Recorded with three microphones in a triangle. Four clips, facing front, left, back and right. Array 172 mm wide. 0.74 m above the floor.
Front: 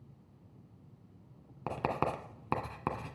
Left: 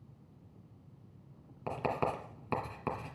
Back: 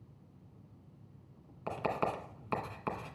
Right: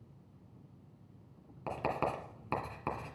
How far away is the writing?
About 1.7 m.